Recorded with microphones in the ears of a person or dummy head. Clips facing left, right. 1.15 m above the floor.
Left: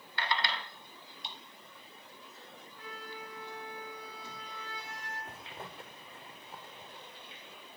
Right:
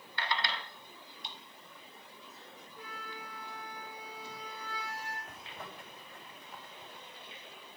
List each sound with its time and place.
2.8 s a flute: 15° right (ahead or behind), 5.5 m
5.3 s a zipper: 30° left (ahead or behind), 1.9 m